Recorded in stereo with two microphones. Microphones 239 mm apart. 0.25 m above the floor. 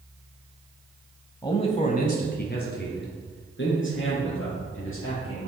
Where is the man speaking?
15° left (ahead or behind), 1.0 m; by 5.5 s 60° left (ahead or behind), 4.5 m.